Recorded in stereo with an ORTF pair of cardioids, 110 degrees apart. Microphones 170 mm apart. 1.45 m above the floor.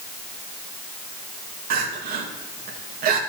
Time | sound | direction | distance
1.7 | crying | 60° right | 2 m